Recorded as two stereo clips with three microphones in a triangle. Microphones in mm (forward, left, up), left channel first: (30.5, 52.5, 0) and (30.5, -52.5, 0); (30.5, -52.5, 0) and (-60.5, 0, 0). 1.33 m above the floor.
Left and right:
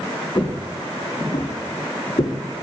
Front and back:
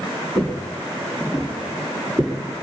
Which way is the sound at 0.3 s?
40° left.